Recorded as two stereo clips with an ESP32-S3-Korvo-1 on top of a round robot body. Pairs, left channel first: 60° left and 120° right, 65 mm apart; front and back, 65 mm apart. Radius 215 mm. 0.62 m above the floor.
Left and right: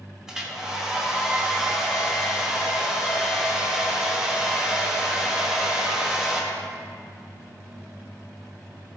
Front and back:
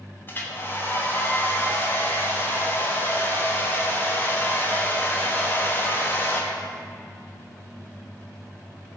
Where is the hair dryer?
40° right, 1.4 m.